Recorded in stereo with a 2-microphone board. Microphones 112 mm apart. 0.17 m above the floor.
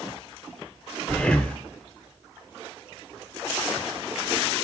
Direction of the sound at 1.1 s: 10° left (ahead or behind).